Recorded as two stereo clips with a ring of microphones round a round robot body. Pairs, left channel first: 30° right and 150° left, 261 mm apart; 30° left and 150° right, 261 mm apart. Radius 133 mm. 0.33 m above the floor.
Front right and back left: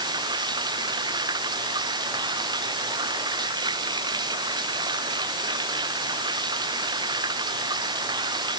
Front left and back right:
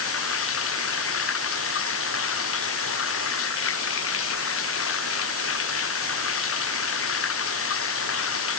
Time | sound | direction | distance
0.0 | running water | 75° left | ?